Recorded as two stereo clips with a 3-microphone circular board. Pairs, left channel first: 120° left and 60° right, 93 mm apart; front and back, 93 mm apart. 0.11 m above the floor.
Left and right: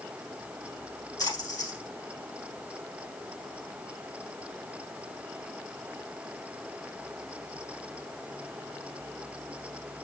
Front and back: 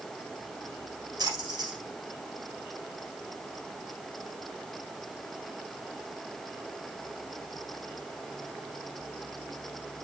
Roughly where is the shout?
I don't hear a shout.